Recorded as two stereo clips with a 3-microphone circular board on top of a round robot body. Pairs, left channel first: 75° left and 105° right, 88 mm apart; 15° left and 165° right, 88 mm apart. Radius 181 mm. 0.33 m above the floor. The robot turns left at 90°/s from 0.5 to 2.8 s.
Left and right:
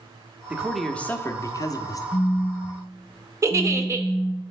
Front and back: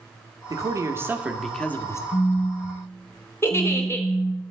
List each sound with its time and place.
0.5 s a man speaking: 170° right, 1.2 m; by 2.0 s 50° left, 1.2 m
2.1 s a phone buzzing: 30° left, 1.3 m; by 4.4 s 35° right, 1.3 m
3.4 s a giggle: 45° right, 0.9 m